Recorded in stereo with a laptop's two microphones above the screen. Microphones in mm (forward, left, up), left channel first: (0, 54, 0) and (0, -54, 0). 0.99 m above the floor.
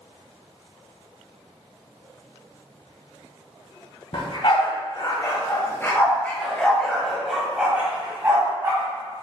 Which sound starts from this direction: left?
A dog barking, at 4.1 s.